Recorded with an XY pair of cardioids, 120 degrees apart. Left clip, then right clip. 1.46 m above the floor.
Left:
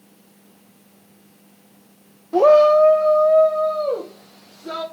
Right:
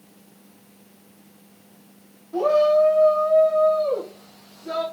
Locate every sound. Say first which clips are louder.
2.3 s a shout: left 6 dB; 55° left, 0.5 m; by 4.8 s 35° left, 3.5 m